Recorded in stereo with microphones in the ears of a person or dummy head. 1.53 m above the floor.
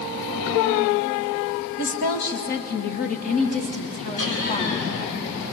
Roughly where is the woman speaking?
Left.